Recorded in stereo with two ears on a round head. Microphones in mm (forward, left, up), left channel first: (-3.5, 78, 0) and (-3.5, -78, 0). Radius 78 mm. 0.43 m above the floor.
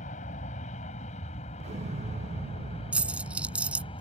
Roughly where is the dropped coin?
Centre.